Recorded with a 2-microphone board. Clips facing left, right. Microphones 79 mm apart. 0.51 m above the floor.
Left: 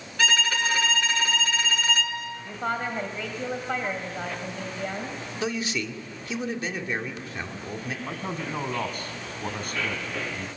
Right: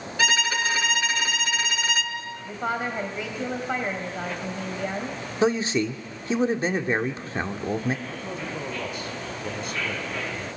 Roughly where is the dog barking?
I don't hear a dog barking.